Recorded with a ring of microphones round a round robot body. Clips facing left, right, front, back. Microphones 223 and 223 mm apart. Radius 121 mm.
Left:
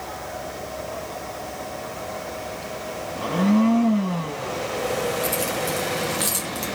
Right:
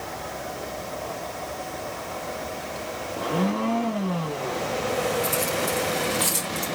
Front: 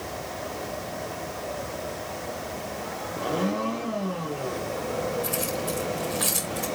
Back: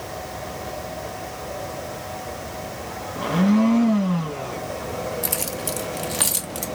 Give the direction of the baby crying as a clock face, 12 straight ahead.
I don't hear a baby crying.